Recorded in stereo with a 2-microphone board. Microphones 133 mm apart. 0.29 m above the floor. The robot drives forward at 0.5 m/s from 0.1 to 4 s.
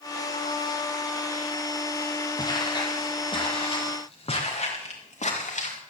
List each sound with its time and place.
2.4 s footsteps: 30° left (ahead or behind), 4 m; by 5.8 s 60° left (ahead or behind), 5.5 m